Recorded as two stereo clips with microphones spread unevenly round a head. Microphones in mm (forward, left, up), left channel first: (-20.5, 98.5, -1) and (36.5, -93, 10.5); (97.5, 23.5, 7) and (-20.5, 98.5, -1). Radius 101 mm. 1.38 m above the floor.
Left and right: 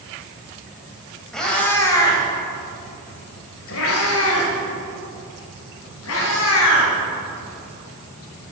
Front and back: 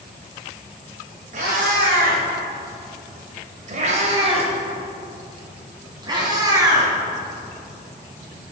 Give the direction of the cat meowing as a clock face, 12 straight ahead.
5 o'clock.